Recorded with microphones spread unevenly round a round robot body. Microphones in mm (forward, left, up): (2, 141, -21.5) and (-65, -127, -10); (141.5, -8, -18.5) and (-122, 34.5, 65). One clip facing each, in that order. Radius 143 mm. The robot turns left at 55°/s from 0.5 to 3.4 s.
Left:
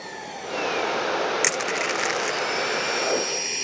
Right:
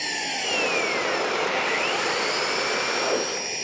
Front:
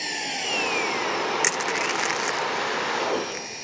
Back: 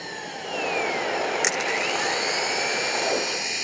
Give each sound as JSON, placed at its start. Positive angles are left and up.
{"t": 0.0, "sound": "an engine running", "azimuth_deg": -60}
{"t": 1.4, "sound": "crushing", "azimuth_deg": 70}